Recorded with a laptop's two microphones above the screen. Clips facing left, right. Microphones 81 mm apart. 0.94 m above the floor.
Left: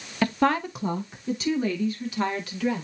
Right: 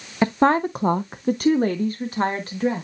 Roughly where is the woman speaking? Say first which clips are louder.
Right 5 dB; right.